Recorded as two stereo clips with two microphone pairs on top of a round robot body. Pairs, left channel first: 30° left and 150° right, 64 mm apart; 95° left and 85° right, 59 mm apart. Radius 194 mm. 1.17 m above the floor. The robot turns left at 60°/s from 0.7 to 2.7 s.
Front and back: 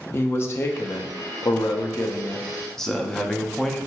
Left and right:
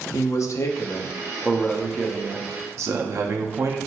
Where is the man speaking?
70° left, 0.5 m; by 3.8 s 50° right, 0.5 m.